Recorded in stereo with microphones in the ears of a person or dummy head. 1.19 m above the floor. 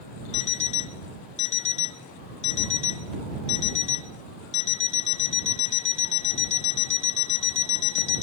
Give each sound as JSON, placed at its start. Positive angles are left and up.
{"t": 0.3, "sound": "an alarm clock", "side_deg": 40}